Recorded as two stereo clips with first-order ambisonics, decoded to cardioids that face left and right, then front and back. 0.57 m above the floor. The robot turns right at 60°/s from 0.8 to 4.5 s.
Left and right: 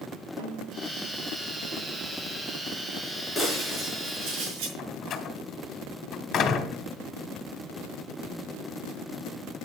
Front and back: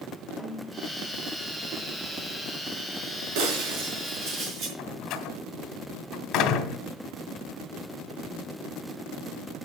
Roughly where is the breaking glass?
Behind.